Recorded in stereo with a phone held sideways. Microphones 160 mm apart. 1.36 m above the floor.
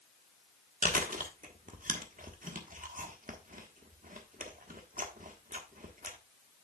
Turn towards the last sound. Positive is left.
turn(degrees=-55)  # may be behind; listen again after turning